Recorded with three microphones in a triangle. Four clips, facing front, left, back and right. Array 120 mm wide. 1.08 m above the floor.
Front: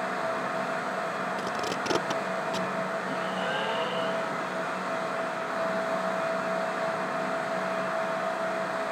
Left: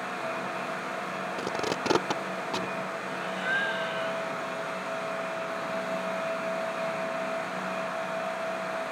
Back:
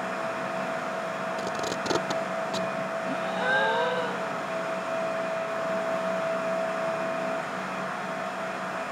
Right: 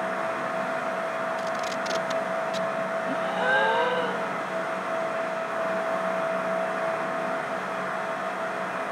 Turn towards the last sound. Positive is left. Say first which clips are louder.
# right 7 dB, back 3 dB
turn(degrees=-105)